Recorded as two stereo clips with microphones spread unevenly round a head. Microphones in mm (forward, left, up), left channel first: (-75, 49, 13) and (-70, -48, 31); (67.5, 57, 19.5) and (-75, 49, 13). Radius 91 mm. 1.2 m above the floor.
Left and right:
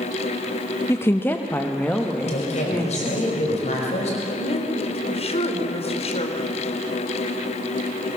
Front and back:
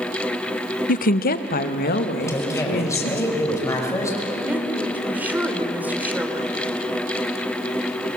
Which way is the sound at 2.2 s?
70° left.